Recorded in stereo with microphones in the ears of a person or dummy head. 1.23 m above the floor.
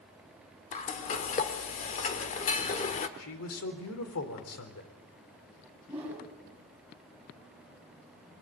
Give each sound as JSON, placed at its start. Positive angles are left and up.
{"t": 0.7, "sound": "frying", "side_deg": 40, "distance_m": 1.4}
{"t": 3.2, "sound": "a man speaking", "side_deg": 80, "distance_m": 4.0}
{"t": 5.9, "sound": "a whoosh", "side_deg": -10, "distance_m": 6.0}